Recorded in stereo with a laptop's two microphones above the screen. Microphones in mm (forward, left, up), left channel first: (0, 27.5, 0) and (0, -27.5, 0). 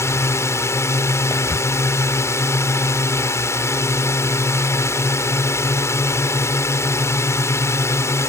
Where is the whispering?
80° left.